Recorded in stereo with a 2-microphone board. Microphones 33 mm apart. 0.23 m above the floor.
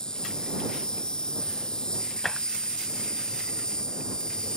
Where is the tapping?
15° left (ahead or behind).